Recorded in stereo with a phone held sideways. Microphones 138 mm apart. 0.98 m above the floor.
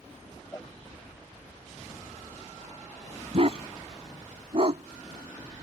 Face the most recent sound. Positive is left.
turn(degrees=-45)  # may be behind; listen again after turning